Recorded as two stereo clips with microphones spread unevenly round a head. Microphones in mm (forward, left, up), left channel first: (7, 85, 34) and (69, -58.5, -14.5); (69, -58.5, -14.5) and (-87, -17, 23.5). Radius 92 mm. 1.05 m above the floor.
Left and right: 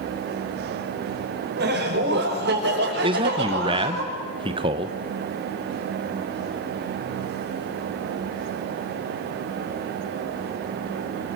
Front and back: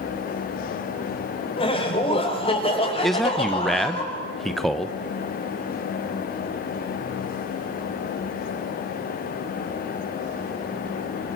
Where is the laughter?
70° right, 5.5 m.